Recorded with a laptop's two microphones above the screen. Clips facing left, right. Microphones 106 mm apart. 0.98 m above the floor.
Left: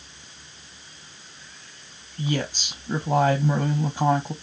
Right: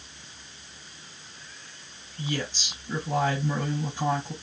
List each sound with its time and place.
2.2 s a woman speaking: 40° left (ahead or behind), 0.7 m